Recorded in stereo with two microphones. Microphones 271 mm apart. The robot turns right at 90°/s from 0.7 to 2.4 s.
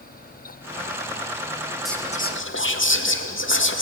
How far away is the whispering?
About 2.5 m.